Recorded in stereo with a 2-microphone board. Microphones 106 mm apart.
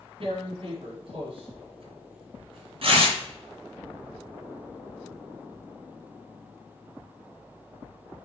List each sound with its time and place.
0.2 s tearing paper: 60° right (ahead or behind), 3 m